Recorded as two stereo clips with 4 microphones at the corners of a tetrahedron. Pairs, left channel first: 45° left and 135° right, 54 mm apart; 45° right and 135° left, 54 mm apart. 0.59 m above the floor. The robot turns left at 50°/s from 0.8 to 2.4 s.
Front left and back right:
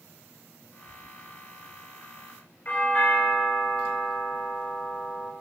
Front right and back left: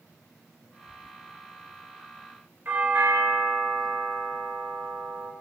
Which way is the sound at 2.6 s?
95° left.